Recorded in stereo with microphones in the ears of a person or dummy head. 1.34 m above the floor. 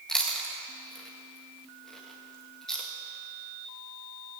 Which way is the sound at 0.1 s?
5° left (ahead or behind).